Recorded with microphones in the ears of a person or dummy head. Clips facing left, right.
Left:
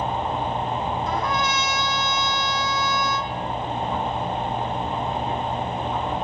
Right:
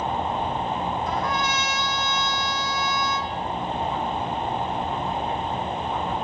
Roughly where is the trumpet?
Left.